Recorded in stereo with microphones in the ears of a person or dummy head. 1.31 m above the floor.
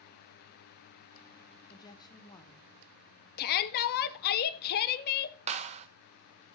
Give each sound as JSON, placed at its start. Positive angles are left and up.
{"t": 1.7, "sound": "a woman speaking", "side_deg": 20, "distance_m": 0.8}
{"t": 3.4, "sound": "a shout", "side_deg": 50, "distance_m": 0.7}
{"t": 5.5, "sound": "a clap", "side_deg": -30, "distance_m": 0.8}